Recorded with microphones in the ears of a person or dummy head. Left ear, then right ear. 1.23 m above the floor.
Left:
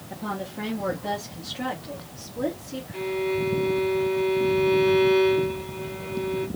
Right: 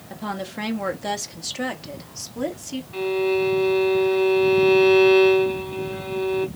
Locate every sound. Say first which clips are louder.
0.1 s a woman speaking: right 2 dB; 45° right (ahead or behind), 1.0 m; by 2.8 s 65° right (ahead or behind), 1.8 m
2.9 s a violin: right 5 dB; 55° right (ahead or behind), 1.5 m